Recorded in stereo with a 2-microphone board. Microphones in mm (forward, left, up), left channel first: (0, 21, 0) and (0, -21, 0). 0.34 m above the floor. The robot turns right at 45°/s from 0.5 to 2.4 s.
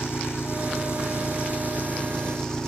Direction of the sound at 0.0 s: 80° left.